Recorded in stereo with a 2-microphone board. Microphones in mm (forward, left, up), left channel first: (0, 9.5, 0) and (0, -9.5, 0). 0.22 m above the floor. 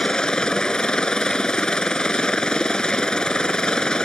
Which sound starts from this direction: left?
A helicopter, at 0.0 s.